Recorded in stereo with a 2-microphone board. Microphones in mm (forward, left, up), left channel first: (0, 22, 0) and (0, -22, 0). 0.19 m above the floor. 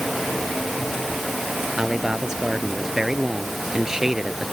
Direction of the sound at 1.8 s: 10° right (ahead or behind).